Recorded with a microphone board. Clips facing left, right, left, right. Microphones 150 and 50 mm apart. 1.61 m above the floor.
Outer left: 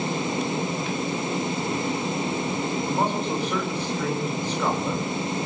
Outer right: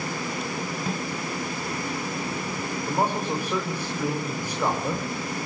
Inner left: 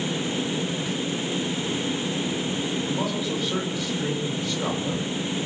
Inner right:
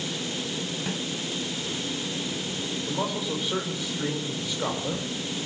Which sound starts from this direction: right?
A snare drum, at 0.9 s.